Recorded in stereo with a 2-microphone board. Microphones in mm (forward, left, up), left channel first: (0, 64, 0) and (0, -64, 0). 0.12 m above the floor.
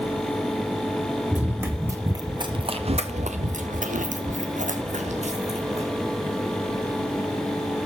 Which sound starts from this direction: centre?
Running footsteps, at 1.3 s.